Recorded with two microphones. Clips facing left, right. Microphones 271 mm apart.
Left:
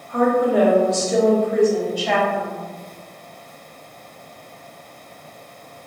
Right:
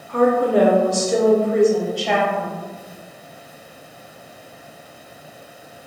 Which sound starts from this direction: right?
A woman speaking, at 0.1 s.